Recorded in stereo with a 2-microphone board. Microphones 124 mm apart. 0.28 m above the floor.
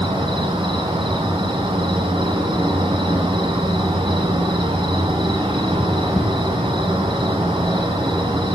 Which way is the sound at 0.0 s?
45° right (ahead or behind).